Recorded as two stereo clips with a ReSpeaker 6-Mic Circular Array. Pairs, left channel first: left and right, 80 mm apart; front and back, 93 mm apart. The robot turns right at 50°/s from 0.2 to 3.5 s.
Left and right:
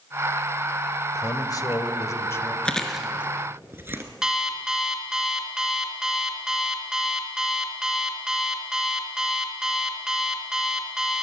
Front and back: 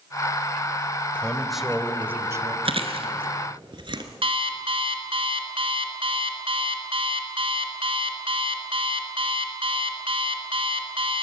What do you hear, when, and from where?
1.1 s a man speaking: 75° left, 1.5 m; by 2.5 s 145° left, 1.5 m
2.6 s chewing: 165° left, 1.7 m; by 4.0 s 150° right, 1.7 m
4.2 s an alarm clock: 170° right, 2 m